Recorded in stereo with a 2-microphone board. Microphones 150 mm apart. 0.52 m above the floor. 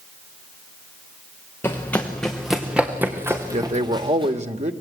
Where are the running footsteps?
15° left (ahead or behind), 3.5 m; by 4.3 s 35° right (ahead or behind), 4 m.